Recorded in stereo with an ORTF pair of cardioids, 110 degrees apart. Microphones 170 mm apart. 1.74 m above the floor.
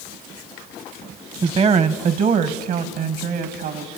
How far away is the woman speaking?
About 1.2 m.